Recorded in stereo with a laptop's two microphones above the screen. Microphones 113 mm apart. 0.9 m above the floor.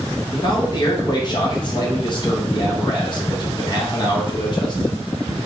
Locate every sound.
0.3 s a man speaking: 40° left (ahead or behind), 1.0 m